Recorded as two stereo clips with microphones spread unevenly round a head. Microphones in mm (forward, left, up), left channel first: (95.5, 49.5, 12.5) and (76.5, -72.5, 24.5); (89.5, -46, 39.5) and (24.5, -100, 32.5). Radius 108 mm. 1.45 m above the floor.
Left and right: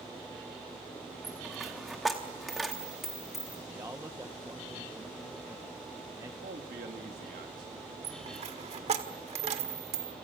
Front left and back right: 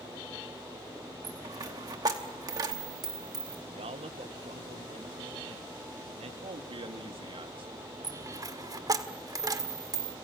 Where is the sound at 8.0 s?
105° right, 1.6 m.